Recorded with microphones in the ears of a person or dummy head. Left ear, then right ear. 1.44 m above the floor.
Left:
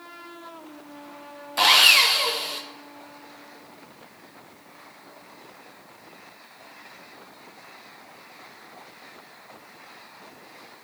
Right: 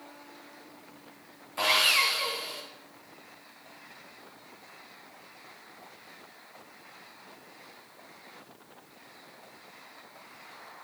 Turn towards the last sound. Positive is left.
turn(degrees=30)  # may be behind; listen again after turning